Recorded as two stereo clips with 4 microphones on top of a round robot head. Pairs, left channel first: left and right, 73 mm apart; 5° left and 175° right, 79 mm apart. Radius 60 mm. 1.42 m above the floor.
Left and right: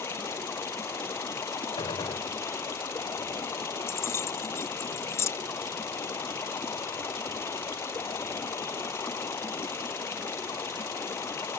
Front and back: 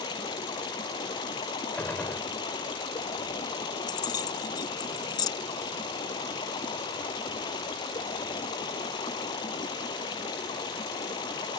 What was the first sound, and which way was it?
Running water, 35° left.